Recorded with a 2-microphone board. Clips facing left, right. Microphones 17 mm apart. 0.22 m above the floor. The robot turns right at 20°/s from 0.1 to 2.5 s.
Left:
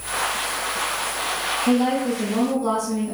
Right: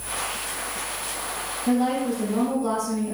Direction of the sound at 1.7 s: 45° left (ahead or behind).